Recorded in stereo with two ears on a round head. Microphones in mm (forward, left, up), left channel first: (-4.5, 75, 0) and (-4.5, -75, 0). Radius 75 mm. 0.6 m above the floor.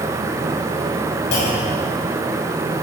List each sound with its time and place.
1.3 s a clunk: 70° left (ahead or behind), 5 m